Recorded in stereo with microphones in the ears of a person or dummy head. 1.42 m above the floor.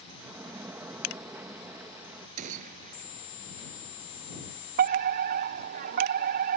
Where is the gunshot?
45° right (ahead or behind).